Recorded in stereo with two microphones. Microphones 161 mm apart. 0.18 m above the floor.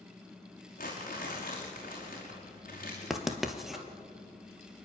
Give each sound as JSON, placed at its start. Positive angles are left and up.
{"t": 0.8, "sound": "crumpling", "side_deg": 55, "distance_m": 5.0}
{"t": 3.1, "sound": "writing", "side_deg": 0, "distance_m": 1.7}